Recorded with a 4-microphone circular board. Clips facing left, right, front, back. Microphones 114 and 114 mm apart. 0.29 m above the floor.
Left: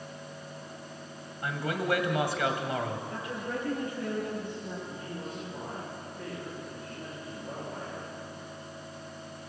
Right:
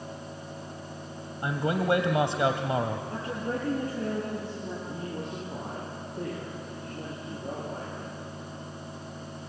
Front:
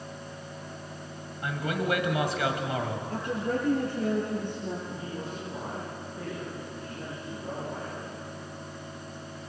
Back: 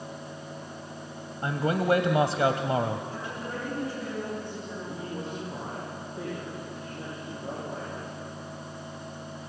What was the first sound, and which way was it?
A man speaking, 140° right.